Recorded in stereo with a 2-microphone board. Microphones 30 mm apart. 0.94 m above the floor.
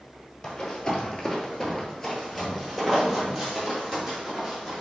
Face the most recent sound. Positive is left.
turn(degrees=-10)  # may be behind; listen again after turning